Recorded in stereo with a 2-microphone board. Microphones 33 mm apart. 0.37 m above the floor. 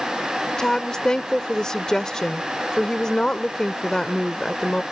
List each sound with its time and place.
0.6 s a woman speaking: 20° left (ahead or behind)